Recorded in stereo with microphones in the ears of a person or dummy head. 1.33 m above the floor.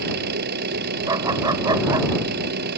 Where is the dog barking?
20° right (ahead or behind).